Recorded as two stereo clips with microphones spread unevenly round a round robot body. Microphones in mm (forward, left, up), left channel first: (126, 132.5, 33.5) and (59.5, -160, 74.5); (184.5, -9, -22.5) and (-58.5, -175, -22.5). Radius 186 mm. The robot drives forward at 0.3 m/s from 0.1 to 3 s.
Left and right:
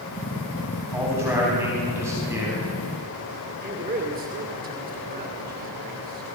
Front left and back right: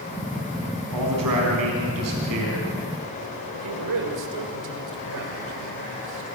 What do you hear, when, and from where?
0.9 s a man speaking: 175° left, 5 m
3.6 s a man speaking: 170° right, 2.5 m